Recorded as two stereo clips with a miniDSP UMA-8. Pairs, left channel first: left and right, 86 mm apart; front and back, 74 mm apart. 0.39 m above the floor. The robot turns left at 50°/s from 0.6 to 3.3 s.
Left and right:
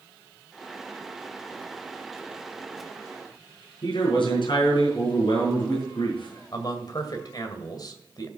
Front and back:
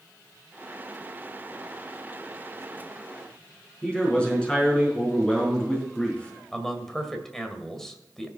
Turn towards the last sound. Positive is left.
turn(degrees=85)